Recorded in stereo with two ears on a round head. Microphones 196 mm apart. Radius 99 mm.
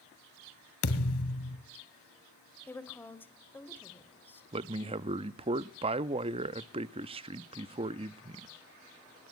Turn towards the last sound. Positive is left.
turn(degrees=-25)  # may be behind; listen again after turning